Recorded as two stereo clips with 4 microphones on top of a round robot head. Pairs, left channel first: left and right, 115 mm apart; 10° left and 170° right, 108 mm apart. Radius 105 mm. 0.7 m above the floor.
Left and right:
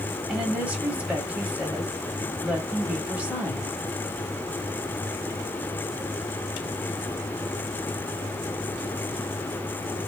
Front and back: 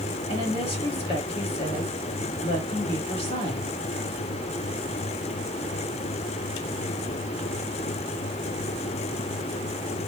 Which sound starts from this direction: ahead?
A woman speaking, at 0.3 s.